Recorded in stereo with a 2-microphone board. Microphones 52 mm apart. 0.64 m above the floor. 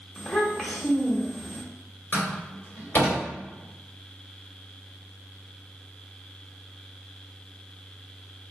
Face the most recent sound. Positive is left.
turn(degrees=50)  # may be behind; listen again after turning